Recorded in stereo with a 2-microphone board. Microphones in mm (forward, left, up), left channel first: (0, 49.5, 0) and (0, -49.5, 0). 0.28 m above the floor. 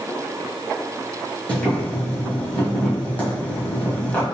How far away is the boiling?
About 1.7 m.